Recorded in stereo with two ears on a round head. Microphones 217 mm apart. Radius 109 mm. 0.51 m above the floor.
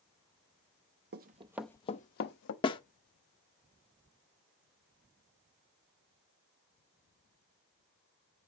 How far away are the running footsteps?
About 0.7 m.